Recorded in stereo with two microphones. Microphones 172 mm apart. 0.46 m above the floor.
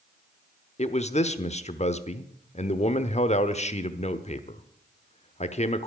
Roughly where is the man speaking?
Left.